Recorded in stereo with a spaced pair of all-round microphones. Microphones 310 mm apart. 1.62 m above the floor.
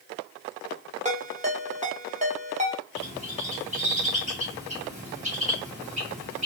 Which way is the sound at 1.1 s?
20° right (ahead or behind).